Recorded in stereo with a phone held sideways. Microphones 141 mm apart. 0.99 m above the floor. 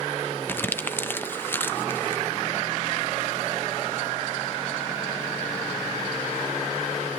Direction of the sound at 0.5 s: 15° left (ahead or behind).